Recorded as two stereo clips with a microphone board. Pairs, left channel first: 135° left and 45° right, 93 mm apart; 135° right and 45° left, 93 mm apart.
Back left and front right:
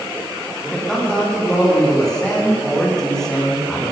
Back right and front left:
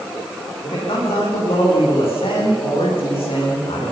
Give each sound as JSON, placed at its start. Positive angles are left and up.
{"t": 0.6, "sound": "a man speaking", "azimuth_deg": -140, "distance_m": 9.5}